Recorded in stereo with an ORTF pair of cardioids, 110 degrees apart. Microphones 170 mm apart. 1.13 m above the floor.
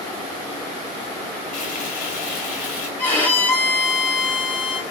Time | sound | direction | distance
1.5 | frying | 60° left | 1.9 m
3.0 | a violin | 10° left | 1.2 m